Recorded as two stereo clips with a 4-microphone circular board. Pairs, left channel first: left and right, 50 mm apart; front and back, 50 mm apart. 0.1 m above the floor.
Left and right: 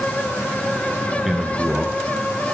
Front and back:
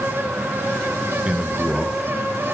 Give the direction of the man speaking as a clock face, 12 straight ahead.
5 o'clock.